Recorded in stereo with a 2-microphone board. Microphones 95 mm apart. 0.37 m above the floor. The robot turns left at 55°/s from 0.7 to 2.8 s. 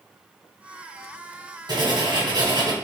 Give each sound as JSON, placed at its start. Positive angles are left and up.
{"t": 1.7, "sound": "writing", "azimuth_deg": -65, "distance_m": 2.5}